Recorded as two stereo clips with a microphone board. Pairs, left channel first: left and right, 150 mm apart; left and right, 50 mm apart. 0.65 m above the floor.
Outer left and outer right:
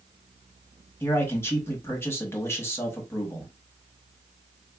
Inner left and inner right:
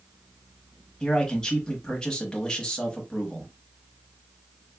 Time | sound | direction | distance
1.0 | a man speaking | 15° left (ahead or behind) | 1.0 m